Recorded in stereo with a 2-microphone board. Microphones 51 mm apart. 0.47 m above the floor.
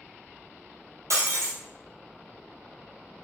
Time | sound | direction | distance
1.1 | breaking glass | 65° right (ahead or behind) | 1.5 m